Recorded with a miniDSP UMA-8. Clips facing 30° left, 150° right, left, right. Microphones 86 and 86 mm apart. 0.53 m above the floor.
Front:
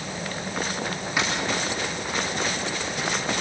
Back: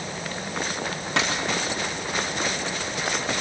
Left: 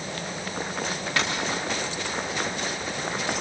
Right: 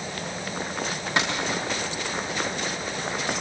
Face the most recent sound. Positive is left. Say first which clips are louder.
# back 1 dB, right 2 dB
turn(degrees=-160)